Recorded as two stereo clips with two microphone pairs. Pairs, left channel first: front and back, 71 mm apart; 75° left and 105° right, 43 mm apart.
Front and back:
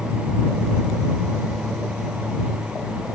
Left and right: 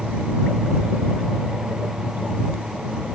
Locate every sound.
Only background noise.